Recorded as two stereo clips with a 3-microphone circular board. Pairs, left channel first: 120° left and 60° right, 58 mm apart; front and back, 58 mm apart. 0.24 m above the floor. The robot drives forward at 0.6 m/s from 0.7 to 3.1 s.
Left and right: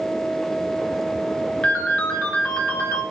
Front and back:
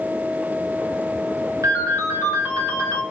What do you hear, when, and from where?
1.6 s a ringtone: 170° right, 2 m; by 3.0 s 175° right, 3 m